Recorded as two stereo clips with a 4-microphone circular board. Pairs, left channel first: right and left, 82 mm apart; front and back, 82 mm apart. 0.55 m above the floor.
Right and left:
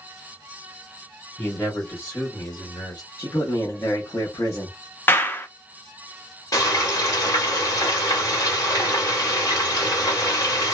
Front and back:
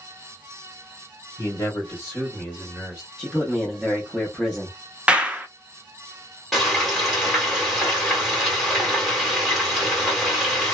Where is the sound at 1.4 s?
25° right, 1.4 m; by 3.1 s 95° right, 1.6 m.